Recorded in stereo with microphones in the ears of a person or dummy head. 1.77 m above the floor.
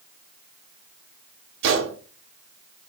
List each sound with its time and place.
1.6 s a gunshot: 65° right (ahead or behind), 0.7 m